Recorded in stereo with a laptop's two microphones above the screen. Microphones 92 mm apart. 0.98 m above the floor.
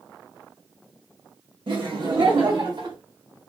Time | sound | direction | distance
1.7 | laughter | 65° right (ahead or behind) | 1.6 m